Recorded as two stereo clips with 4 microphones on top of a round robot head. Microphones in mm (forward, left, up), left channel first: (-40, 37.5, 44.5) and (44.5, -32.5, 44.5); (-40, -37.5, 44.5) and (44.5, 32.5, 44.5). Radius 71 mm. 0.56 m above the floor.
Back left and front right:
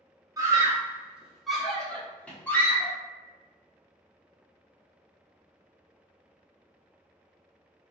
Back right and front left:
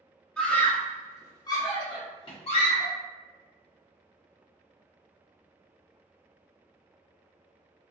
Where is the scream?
65° right, 1.3 m; by 3.0 s 155° right, 2.0 m.